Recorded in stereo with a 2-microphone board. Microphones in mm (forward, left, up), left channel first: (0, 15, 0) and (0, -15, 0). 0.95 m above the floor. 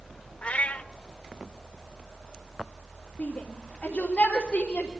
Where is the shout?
40° left (ahead or behind), 3 m.